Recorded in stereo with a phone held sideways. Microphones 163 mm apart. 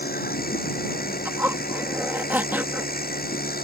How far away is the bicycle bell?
No bicycle bell in this recording.